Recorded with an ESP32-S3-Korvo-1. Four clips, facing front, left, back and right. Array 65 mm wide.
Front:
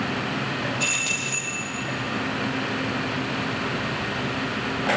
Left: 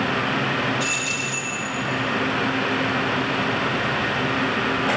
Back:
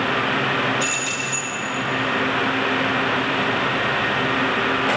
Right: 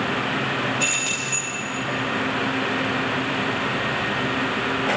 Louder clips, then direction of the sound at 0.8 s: Even, back 3 dB; 65° right.